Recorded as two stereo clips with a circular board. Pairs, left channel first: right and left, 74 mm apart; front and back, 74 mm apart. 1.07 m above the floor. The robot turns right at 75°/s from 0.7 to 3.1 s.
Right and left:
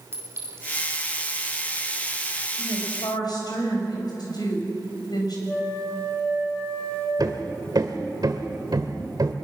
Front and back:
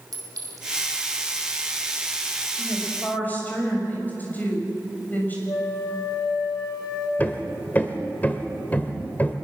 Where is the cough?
I don't hear a cough.